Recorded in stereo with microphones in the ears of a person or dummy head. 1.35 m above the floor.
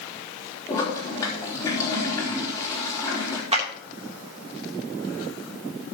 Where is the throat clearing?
I don't hear throat clearing.